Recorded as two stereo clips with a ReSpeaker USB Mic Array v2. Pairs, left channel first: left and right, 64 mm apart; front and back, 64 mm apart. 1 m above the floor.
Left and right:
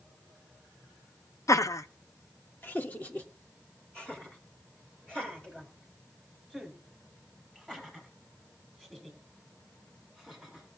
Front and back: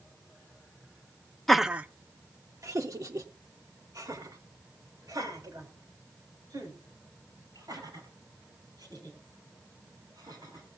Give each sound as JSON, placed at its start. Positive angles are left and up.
{"t": 1.5, "sound": "laughter", "azimuth_deg": 85, "distance_m": 0.5}